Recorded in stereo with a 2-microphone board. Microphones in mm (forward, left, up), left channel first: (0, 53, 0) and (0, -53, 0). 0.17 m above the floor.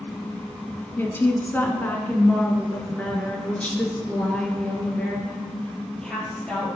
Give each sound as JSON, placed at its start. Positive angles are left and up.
{"t": 1.0, "sound": "a woman speaking", "side_deg": 20, "distance_m": 1.8}